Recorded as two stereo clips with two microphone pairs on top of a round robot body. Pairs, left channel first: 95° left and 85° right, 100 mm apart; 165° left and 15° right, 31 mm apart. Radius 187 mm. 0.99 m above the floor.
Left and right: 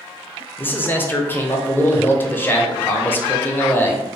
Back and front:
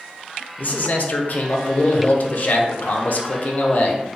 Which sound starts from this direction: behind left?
A man speaking, at 0.6 s.